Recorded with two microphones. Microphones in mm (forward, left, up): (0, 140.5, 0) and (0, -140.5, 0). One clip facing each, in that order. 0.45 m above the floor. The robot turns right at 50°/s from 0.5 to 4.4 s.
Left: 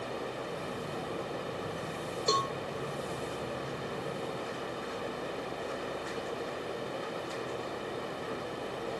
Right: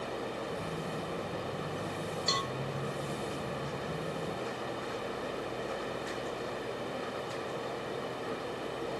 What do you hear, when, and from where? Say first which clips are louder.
2.3 s a cowbell: left 5 dB; 60° left (ahead or behind); by 2.5 s 45° left (ahead or behind)